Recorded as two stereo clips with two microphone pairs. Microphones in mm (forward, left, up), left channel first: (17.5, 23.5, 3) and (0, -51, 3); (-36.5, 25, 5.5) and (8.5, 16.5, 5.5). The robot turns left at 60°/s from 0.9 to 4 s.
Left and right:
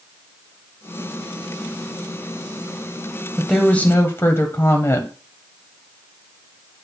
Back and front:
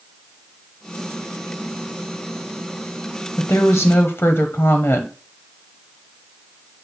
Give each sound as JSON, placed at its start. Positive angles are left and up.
{"t": 3.4, "sound": "a woman speaking", "azimuth_deg": 175, "distance_m": 1.1}